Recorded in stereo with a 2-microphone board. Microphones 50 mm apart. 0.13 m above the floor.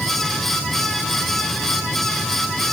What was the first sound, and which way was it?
Only background noise.